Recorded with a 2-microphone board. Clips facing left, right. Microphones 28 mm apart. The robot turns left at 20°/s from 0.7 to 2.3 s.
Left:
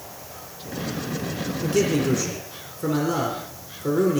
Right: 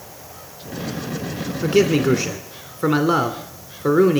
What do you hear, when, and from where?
1.6 s a man speaking: 35° right (ahead or behind), 1.7 m; by 4.2 s 45° right (ahead or behind), 1.7 m